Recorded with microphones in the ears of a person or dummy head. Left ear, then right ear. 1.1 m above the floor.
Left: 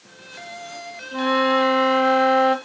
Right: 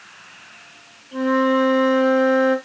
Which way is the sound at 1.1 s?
50° left (ahead or behind).